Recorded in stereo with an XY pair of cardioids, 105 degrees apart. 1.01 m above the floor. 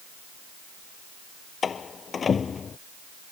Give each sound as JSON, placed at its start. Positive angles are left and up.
{"t": 1.6, "sound": "a door slam", "azimuth_deg": 40}